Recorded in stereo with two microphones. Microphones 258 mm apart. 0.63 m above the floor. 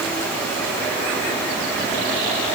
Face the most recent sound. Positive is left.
No sound to turn to.